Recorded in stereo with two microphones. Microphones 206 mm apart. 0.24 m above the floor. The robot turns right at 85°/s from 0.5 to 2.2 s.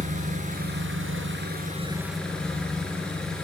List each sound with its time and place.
0.0 s an engine running: 140° right, 2.5 m; by 3.5 s 5° left, 2.5 m